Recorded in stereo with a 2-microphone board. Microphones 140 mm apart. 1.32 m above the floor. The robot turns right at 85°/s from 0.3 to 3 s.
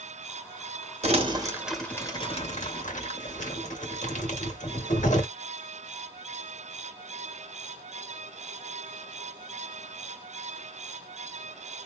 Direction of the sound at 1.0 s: 55° right (ahead or behind).